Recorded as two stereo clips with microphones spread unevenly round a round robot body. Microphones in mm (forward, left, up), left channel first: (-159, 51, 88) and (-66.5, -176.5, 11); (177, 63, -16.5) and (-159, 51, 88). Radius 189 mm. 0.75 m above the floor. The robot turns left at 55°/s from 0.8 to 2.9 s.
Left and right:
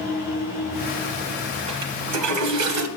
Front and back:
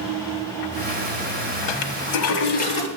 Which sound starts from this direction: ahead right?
A toilet flushing, at 1.7 s.